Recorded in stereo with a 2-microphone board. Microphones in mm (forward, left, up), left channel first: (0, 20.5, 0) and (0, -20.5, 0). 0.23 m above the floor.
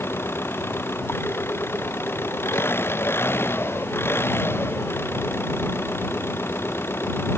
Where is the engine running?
80° left.